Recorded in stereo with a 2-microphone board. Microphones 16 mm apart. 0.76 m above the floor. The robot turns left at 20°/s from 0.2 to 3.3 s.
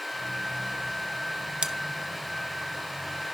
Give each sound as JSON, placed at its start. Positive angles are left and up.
{"t": 1.6, "sound": "scissors", "side_deg": -70, "distance_m": 0.5}